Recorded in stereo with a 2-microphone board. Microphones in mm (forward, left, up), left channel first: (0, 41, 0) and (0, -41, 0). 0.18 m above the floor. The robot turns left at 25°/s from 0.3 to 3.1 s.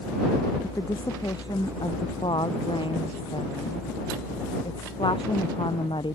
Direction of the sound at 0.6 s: 140° left.